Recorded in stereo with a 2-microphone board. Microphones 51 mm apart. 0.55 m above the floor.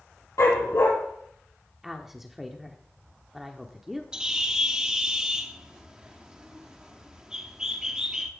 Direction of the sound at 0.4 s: 85° left.